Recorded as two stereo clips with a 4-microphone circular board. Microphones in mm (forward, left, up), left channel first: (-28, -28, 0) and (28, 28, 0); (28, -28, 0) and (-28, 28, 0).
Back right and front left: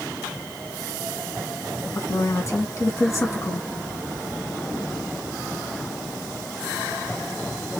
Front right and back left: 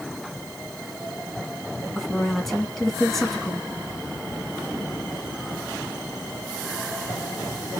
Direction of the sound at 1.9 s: 130° right.